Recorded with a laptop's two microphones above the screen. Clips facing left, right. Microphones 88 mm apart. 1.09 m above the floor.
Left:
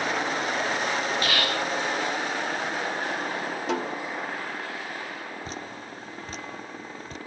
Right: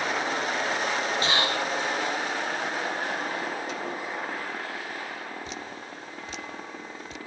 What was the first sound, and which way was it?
Whispering, 25° right (ahead or behind).